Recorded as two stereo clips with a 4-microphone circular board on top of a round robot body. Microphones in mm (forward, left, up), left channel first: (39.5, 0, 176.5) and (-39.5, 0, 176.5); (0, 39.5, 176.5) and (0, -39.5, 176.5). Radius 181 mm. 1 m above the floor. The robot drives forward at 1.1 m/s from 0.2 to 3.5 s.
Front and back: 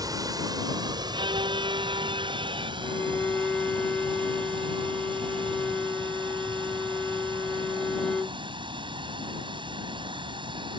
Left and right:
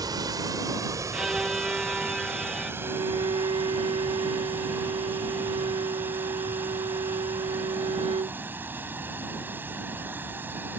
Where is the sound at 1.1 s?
175° right; by 2.7 s straight behind.